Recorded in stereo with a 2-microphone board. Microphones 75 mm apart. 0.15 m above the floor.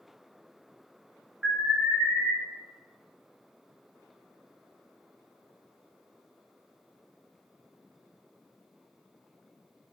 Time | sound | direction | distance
1.4 | an alarm | 25° right (ahead or behind) | 1.2 m